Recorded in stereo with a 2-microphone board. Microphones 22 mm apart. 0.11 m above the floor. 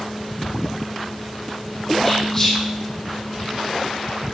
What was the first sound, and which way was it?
Whispering, 10° left (ahead or behind).